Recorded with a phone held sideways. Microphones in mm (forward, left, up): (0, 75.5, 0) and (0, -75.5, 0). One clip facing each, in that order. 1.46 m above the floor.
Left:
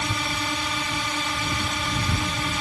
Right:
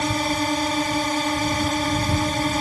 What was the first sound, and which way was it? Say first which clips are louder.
A drone: right 7 dB; 40° right (ahead or behind).